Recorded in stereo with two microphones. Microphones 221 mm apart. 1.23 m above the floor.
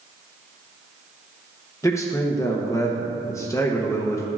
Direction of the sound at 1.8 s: 15° left (ahead or behind).